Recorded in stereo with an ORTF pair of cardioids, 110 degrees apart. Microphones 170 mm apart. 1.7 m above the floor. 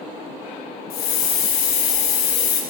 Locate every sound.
0.9 s a hiss: 65° left, 1.3 m